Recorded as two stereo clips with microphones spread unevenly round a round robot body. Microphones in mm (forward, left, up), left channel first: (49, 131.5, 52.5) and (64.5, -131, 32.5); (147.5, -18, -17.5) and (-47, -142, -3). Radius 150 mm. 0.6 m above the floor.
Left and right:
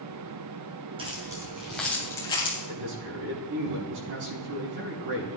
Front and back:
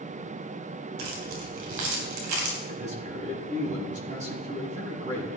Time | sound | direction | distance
1.0 | keys jangling | 160° right | 3 m
2.7 | a man speaking | 90° right | 5 m